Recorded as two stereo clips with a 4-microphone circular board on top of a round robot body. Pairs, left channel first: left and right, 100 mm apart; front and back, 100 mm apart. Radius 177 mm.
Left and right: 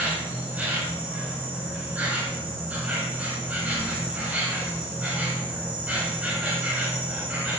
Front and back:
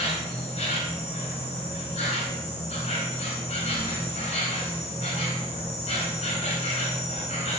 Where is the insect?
15° right, 1.4 m.